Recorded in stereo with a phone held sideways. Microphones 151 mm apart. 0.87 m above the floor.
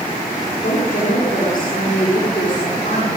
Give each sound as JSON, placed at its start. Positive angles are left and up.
{"t": 0.6, "sound": "a woman speaking", "side_deg": 70, "distance_m": 9.5}